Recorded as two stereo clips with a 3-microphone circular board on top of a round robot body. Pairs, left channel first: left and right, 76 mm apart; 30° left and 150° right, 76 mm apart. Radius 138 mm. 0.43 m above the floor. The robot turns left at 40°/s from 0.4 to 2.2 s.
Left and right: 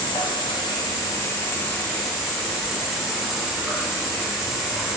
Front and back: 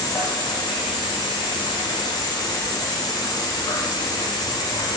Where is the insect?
70° left, 0.9 m; by 5.0 s 5° right, 0.9 m.